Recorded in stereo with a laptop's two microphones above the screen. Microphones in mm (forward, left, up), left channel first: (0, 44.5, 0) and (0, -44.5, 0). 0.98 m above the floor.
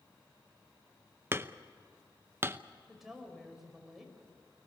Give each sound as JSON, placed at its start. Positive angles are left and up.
{"t": 1.3, "sound": "hammering", "side_deg": -30, "distance_m": 0.8}
{"t": 2.9, "sound": "a woman speaking", "side_deg": -5, "distance_m": 5.5}